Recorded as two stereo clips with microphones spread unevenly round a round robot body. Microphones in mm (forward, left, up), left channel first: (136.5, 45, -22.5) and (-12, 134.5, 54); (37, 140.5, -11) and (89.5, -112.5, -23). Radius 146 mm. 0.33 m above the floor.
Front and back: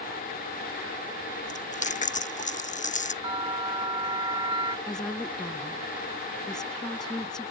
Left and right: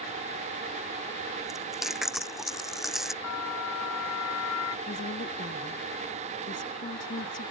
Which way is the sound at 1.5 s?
10° left.